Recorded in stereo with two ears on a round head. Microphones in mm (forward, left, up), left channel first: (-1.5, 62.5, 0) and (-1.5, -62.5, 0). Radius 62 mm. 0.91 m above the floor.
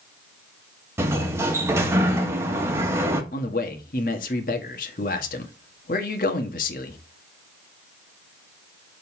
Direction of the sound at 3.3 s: 65° left (ahead or behind).